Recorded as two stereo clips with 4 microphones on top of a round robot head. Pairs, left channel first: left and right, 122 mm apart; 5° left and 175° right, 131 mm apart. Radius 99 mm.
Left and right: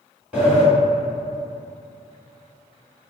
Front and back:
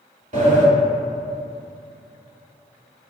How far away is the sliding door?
About 1.3 m.